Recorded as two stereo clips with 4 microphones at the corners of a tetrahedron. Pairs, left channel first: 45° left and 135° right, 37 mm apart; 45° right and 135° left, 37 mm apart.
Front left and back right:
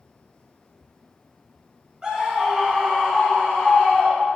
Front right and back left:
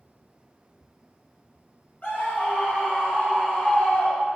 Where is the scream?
70° right, 0.8 m; by 4.4 s straight ahead, 1.6 m.